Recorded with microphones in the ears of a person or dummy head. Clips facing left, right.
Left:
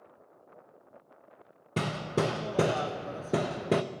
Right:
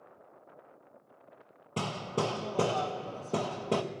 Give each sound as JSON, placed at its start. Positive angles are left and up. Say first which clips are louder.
{"t": 1.8, "sound": "hammering", "louder": "left 3 dB", "side_deg": 30, "distance_m": 0.5}